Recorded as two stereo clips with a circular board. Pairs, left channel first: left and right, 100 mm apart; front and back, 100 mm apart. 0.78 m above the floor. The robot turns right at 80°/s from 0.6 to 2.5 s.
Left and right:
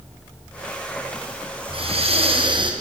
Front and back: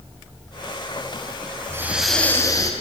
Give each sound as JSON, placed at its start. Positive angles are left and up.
{"t": 1.7, "sound": "breathing", "azimuth_deg": -120, "distance_m": 3.5}